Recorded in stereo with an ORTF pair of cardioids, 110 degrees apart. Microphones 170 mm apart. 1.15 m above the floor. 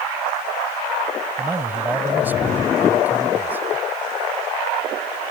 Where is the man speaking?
10° right.